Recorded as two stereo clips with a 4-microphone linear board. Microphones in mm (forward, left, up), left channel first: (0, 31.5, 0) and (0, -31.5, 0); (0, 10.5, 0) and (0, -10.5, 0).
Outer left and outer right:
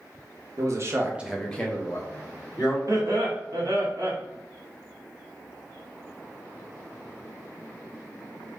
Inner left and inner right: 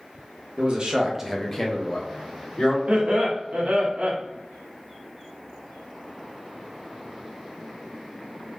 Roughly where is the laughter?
Right.